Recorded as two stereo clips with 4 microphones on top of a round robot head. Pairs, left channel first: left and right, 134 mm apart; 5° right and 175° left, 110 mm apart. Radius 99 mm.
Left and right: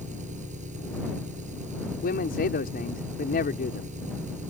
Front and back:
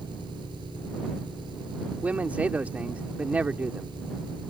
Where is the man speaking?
100° left.